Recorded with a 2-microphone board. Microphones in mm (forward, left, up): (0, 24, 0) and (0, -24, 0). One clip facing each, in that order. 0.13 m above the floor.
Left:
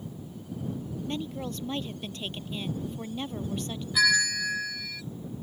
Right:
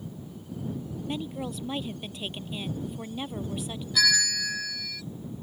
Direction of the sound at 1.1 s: 5° right (ahead or behind).